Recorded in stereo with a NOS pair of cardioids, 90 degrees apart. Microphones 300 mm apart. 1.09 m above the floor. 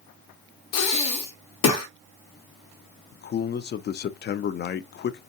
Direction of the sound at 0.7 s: 65° left.